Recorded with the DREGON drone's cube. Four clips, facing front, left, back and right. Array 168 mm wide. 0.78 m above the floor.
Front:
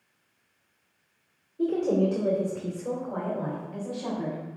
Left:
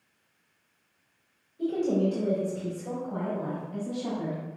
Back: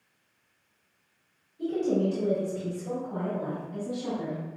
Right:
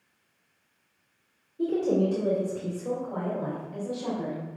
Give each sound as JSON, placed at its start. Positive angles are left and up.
{"t": 1.6, "sound": "a woman speaking", "azimuth_deg": -35, "distance_m": 2.0}